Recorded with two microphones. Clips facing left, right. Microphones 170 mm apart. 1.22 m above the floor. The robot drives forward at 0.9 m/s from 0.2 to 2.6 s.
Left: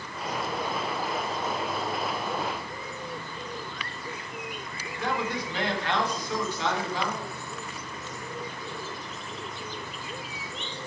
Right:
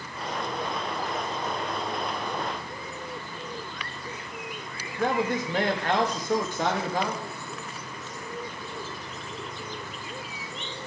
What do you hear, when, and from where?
5.0 s a man speaking: 45° right (ahead or behind), 2.0 m